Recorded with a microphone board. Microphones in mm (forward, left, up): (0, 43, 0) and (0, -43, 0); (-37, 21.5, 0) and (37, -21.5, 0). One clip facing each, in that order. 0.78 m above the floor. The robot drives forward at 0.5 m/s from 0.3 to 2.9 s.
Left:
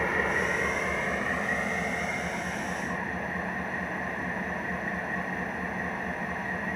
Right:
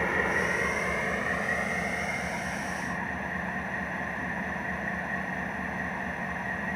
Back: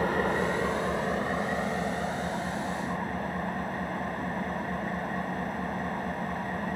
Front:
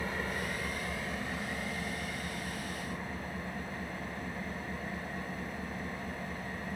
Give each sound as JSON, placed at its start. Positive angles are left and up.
{"t": 0.0, "sound": "an engine running", "azimuth_deg": 180, "distance_m": 0.9}